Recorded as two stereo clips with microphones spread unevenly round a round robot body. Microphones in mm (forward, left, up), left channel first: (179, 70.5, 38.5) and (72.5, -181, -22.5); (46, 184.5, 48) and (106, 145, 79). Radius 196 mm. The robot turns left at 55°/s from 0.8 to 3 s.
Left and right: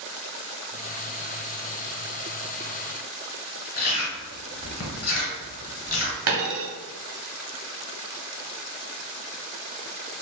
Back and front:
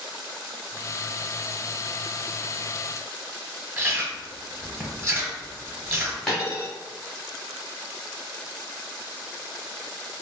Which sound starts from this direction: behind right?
A dropped coin, at 6.3 s.